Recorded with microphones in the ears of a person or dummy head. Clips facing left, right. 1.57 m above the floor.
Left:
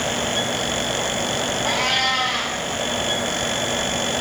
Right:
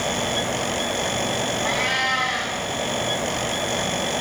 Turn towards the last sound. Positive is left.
turn(degrees=-10)  # may be behind; listen again after turning